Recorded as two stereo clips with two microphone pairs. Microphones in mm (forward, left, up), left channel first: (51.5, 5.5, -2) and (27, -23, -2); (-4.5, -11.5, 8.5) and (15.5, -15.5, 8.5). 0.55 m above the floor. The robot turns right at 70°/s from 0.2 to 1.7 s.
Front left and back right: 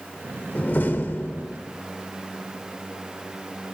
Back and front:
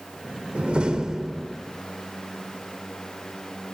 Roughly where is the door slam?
Ahead.